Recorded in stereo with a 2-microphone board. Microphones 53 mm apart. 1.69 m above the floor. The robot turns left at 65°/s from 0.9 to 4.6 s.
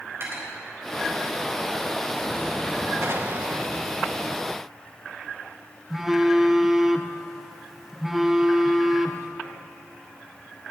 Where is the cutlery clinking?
55° right (ahead or behind), 4 m.